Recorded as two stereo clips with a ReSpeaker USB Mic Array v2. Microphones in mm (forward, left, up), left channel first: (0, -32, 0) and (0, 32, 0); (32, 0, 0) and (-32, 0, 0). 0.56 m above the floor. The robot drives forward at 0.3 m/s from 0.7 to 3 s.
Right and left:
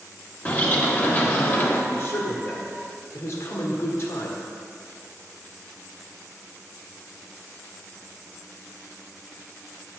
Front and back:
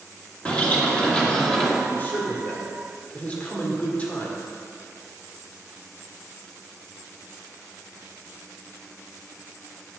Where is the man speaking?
50° right, 2 m; by 4.4 s 60° right, 2.0 m.